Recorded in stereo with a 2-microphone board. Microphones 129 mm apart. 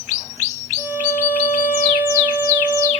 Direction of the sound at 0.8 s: 15° right (ahead or behind).